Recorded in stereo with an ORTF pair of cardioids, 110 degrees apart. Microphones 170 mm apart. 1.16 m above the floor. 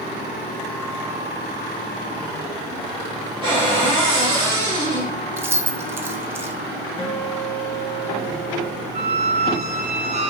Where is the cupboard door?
30° right, 2.5 m.